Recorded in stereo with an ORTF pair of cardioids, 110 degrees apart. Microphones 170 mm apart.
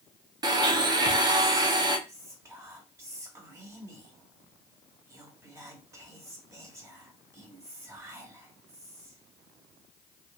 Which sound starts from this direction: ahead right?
A blender, at 0.4 s.